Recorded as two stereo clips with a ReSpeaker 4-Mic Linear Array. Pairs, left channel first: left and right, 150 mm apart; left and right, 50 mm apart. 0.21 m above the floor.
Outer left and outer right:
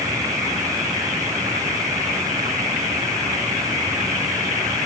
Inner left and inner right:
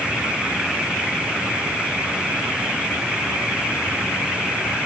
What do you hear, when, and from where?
Only background noise.